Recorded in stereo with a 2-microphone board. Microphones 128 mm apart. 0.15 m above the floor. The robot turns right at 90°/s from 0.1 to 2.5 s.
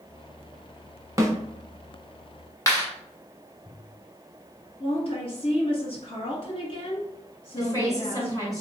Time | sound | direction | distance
1.2 | a snare drum | 30° right (ahead or behind) | 0.7 m
2.7 | a clap | 25° left (ahead or behind) | 1.1 m
4.8 | a woman speaking | 50° left (ahead or behind) | 1.8 m
7.6 | a woman speaking | 30° left (ahead or behind) | 1.5 m